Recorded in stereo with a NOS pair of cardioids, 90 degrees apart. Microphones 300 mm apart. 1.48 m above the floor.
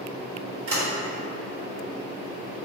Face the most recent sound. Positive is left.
turn(degrees=-50)